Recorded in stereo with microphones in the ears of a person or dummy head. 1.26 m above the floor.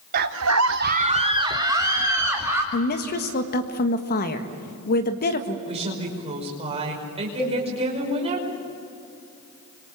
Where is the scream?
50° right (ahead or behind), 0.6 m; by 2.6 s 15° right (ahead or behind), 2.5 m.